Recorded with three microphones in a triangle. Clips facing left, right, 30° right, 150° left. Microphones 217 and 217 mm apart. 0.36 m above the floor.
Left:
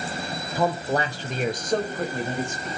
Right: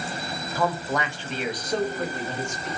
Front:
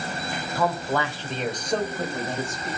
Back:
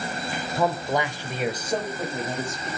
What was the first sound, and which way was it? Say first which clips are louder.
A man speaking: left 2 dB, back 1 dB; 135° left.